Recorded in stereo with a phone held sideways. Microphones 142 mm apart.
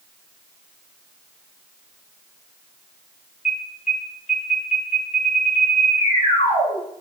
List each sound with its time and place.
3.5 s an alarm: 55° left (ahead or behind), 6.5 m